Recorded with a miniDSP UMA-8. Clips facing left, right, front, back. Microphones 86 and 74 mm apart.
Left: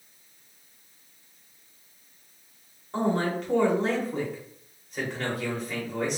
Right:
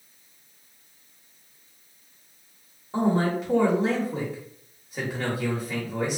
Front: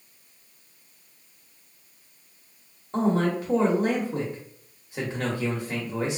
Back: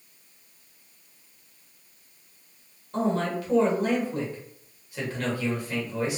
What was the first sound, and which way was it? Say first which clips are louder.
A man speaking: right 3 dB, front 3 dB; 10° right.